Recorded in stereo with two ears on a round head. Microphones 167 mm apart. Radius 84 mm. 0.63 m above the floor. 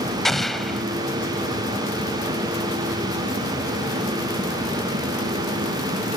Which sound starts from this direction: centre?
An explosion, at 0.2 s.